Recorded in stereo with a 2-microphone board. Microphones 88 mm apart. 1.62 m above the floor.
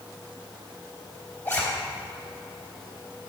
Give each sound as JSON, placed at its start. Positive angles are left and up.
{"t": 1.4, "sound": "a zipper", "side_deg": 20, "distance_m": 4.0}